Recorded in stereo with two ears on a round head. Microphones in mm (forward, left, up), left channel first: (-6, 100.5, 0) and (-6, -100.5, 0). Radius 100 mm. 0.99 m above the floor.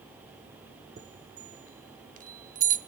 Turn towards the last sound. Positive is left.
turn(degrees=-40)  # may be behind; listen again after turning